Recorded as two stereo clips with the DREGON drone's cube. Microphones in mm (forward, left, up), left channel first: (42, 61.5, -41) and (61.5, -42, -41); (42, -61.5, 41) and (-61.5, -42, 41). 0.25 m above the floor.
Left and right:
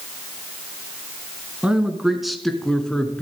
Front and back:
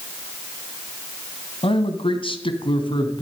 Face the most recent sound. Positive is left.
turn(degrees=20)